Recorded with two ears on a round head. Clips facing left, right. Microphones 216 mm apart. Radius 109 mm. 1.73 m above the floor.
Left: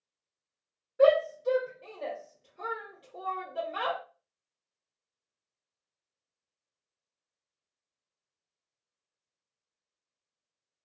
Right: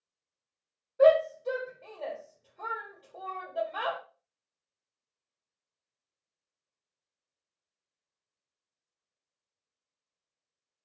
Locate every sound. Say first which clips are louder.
1.0 s a shout: right 1 dB; 25° left (ahead or behind), 1.1 m